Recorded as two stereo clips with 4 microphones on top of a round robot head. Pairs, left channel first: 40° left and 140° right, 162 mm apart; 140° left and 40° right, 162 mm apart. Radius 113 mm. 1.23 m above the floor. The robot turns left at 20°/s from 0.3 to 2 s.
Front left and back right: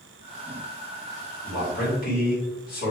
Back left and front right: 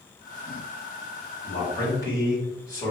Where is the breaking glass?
No breaking glass in this recording.